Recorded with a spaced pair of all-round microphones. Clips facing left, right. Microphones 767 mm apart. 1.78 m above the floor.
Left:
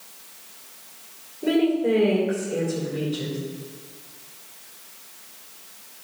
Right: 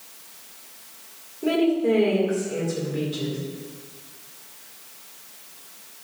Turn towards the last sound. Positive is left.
turn(degrees=-40)  # may be behind; listen again after turning